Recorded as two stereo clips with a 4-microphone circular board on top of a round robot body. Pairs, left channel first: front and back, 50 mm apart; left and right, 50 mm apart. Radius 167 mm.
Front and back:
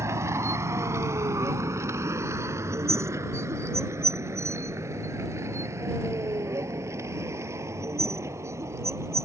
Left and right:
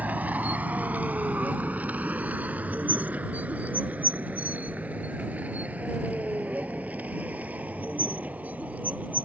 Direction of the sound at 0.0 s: 150° right.